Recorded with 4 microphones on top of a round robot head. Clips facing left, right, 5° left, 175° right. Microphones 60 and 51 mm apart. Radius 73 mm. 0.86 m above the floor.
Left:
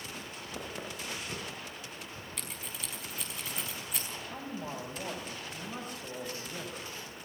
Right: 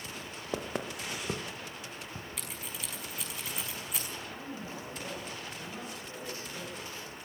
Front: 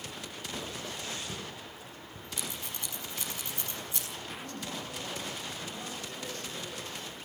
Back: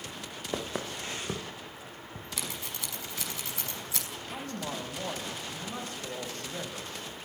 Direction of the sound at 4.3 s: 155° left.